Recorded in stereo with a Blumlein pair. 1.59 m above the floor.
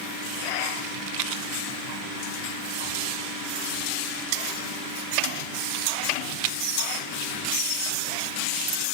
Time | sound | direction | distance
0.8 | a rattle | 45° right | 0.7 m